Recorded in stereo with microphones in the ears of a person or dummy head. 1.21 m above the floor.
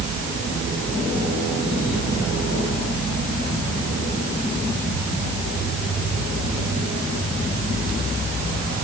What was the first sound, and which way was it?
Only background noise.